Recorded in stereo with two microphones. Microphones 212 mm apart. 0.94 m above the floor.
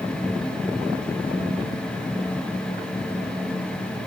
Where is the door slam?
No door slam in this recording.